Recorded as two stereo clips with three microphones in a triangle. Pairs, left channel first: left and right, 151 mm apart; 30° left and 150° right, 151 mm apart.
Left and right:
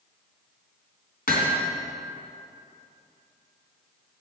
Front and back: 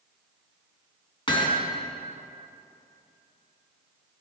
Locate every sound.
1.3 s hammering: 85° left, 2.5 m